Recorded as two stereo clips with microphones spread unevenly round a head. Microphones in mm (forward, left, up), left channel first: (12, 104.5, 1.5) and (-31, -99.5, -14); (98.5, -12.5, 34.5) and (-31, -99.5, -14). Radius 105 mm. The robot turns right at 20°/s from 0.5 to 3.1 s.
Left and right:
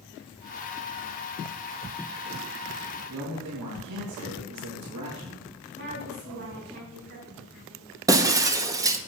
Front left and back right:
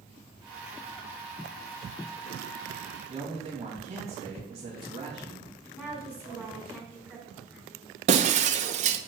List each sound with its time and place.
3.1 s a man speaking: 90° right, 3 m
5.7 s a woman speaking: 60° right, 5.5 m
8.1 s breaking glass: 160° right, 0.9 m